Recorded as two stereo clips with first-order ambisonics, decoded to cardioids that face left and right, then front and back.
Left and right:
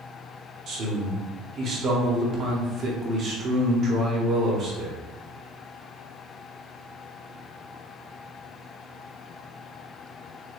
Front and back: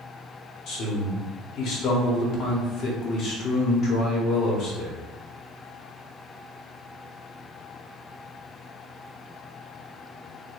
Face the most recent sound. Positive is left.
turn(degrees=-45)